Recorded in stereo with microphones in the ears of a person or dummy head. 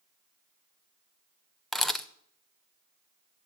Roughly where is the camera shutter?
Centre.